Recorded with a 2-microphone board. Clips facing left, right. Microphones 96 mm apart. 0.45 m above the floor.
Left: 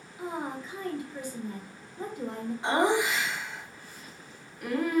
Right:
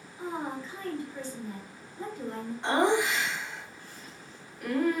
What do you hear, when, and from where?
0.2 s a woman speaking: 15° left (ahead or behind), 0.9 m
2.6 s laughter: 5° left (ahead or behind), 0.7 m